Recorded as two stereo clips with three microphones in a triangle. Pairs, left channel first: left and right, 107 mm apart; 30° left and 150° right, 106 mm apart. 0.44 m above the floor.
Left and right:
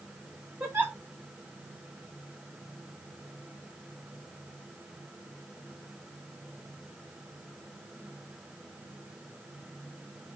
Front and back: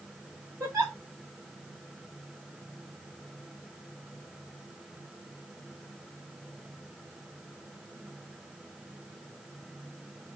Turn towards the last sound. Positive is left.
turn(degrees=-130)